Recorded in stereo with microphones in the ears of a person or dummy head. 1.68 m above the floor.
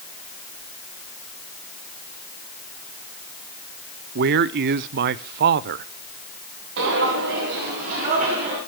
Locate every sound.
4.2 s a man speaking: 55° right (ahead or behind), 0.6 m
6.8 s footsteps: 55° right (ahead or behind), 3 m; by 8.6 s 35° right (ahead or behind), 3.5 m